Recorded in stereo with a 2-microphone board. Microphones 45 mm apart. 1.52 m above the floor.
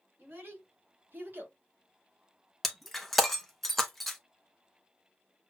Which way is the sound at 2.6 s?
5° left (ahead or behind).